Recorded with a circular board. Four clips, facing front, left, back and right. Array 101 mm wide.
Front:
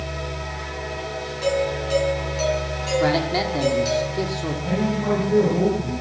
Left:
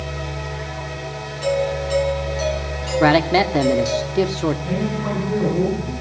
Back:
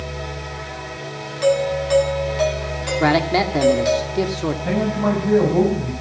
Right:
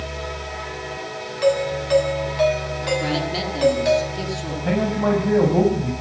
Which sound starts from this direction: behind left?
A man speaking, at 3.0 s.